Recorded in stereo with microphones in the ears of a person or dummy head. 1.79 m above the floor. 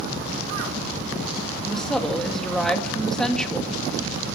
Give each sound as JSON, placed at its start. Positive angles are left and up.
{"t": 1.7, "sound": "a woman speaking", "side_deg": -5, "distance_m": 2.5}